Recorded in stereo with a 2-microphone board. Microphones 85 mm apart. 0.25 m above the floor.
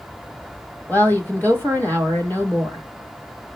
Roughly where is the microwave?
No microwave in this recording.